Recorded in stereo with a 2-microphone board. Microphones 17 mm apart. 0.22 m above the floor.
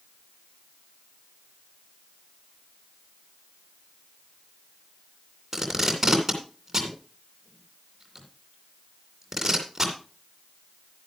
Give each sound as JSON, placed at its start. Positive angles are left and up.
{"t": 5.5, "sound": "tape being pulled", "side_deg": -15, "distance_m": 2.5}